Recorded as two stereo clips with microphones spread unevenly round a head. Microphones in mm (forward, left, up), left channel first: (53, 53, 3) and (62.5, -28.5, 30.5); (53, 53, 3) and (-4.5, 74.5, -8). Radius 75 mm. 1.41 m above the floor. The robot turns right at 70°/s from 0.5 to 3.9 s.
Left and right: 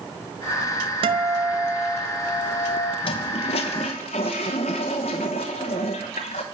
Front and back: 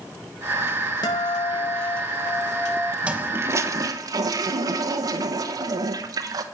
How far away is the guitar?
About 0.7 m.